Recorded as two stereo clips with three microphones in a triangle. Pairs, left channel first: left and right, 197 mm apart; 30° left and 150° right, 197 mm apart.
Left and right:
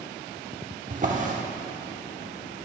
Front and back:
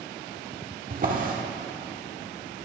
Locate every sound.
0.9 s a drawer: 125° right, 1.2 m